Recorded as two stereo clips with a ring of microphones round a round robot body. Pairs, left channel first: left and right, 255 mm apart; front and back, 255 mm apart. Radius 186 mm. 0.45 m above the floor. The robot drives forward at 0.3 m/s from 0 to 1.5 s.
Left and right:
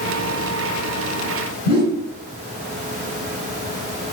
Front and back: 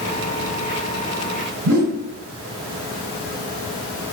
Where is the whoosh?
155° left, 0.8 m.